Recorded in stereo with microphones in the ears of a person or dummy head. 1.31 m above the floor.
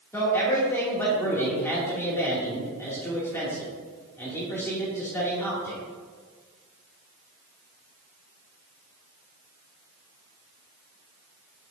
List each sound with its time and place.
0.1 s a man speaking: 10° left (ahead or behind), 2.5 m